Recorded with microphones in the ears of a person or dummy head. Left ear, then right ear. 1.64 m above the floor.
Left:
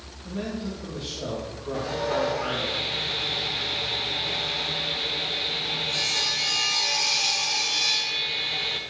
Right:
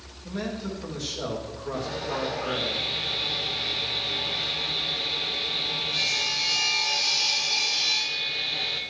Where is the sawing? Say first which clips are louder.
Left 4 dB; 15° left (ahead or behind), 1.3 m.